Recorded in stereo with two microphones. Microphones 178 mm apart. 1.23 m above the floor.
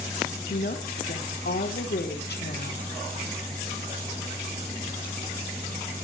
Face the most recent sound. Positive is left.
turn(degrees=70)  # may be behind; listen again after turning